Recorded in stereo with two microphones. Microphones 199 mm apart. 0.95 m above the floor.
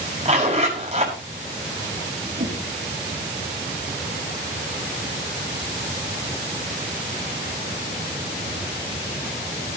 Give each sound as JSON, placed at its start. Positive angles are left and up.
{"t": 0.2, "sound": "a zipper", "side_deg": -35, "distance_m": 6.5}
{"t": 2.4, "sound": "a whoosh", "side_deg": -60, "distance_m": 5.0}